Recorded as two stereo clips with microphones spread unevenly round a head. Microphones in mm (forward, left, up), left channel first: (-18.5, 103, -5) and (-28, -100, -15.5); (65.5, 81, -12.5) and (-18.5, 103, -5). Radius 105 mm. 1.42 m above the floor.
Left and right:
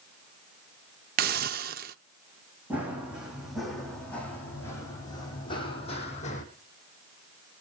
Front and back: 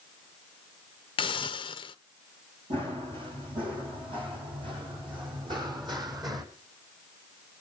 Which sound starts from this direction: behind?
Running footsteps, at 2.7 s.